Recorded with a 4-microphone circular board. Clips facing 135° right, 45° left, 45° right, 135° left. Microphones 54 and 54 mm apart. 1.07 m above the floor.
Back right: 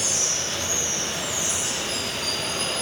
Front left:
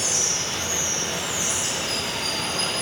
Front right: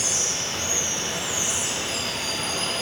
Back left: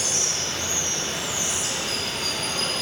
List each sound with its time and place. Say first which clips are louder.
0.0 s running water: front left 1 dB, even; 20° left, 2.5 m